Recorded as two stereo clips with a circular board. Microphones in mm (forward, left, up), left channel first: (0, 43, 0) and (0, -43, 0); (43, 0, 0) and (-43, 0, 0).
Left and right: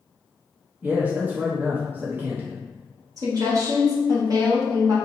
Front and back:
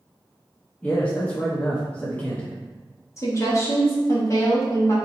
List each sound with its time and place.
0.8 s a man speaking: 55° right, 0.7 m
3.2 s a woman speaking: 50° right, 1.3 m